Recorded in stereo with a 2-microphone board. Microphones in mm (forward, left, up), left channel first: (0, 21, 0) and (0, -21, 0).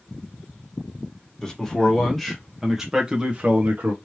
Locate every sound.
1.4 s a man speaking: 15° left (ahead or behind), 1.9 m; by 3.9 s 45° right (ahead or behind), 1.2 m